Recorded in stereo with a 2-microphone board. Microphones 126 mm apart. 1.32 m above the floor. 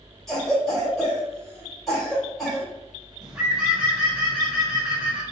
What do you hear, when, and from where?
0.3 s a cough: centre (ahead or behind), 2 m
3.2 s a bird: 5° right (ahead or behind), 1.1 m